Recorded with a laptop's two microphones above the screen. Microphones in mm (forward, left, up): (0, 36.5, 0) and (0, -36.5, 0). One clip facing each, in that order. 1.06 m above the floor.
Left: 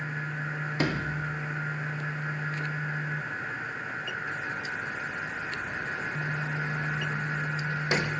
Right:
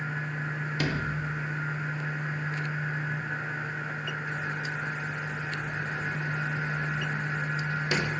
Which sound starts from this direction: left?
A sliding door, at 0.8 s.